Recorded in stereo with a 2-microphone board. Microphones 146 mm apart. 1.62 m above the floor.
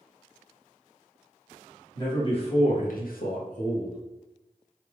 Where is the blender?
I don't hear a blender.